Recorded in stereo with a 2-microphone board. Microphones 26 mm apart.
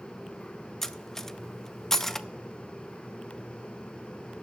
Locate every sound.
0.8 s cutlery clinking: 15° left (ahead or behind), 0.5 m